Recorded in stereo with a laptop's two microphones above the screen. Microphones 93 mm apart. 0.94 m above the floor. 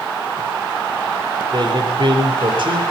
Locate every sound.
1.5 s a man speaking: 50° right (ahead or behind), 4 m; by 2.8 s 65° right (ahead or behind), 4 m